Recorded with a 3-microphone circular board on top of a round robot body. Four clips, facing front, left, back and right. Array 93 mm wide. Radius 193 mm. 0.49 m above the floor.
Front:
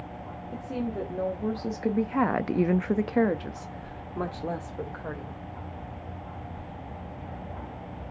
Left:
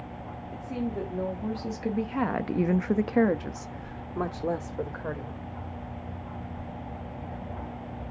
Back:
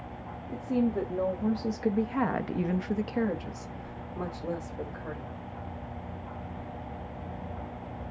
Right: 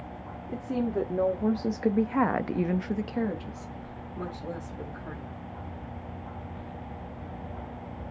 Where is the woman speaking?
90° right, 1.7 m; by 5.4 s 75° left, 2 m.